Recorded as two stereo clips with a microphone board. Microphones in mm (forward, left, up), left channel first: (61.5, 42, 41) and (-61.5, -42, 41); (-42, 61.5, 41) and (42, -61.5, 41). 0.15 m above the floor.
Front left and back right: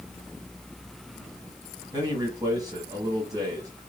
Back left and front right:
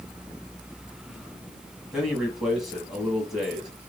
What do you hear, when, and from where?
1.9 s a man speaking: 140° right, 1.4 m